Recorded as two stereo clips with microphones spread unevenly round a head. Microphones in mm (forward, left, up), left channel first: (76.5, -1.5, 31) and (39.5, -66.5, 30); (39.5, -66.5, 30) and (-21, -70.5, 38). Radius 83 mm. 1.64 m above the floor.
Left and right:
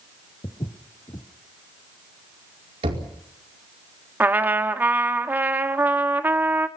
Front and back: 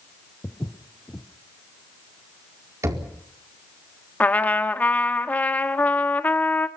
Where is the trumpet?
60° right, 1.6 m.